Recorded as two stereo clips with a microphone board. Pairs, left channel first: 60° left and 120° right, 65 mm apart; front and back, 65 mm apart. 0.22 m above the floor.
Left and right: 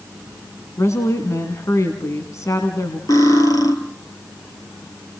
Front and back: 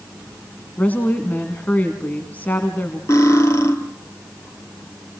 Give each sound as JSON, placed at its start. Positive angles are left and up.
{"t": 0.8, "sound": "a woman speaking", "azimuth_deg": 55, "distance_m": 1.7}
{"t": 3.1, "sound": "cutlery clinking", "azimuth_deg": 45, "distance_m": 2.5}